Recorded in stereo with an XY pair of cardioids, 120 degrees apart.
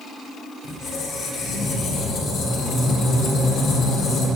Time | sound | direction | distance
0.6 | a squeak | 65° left | 2.5 m